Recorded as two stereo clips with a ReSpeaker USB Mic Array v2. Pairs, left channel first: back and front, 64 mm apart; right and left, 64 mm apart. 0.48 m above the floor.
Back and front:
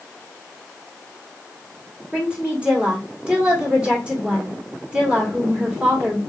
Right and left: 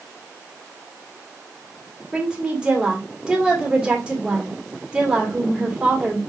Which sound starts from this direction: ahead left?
A woman speaking, at 2.1 s.